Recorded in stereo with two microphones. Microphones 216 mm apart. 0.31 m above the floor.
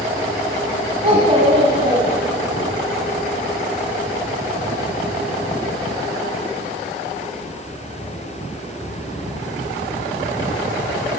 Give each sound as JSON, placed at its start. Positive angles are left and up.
{"t": 1.0, "sound": "a child speaking", "side_deg": -30, "distance_m": 1.3}